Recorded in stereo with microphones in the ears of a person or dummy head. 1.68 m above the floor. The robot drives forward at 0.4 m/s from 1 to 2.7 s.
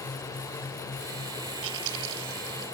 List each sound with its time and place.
1.6 s chewing: 70° right (ahead or behind); by 2.6 s 75° right (ahead or behind)